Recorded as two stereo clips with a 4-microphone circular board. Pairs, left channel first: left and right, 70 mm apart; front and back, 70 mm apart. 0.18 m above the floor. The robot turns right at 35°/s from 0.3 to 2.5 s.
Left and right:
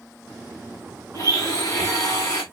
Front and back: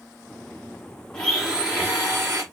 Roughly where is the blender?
Left.